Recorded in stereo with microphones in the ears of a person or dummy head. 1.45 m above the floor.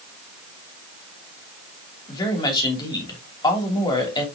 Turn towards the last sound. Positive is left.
turn(degrees=25)  # may be behind; listen again after turning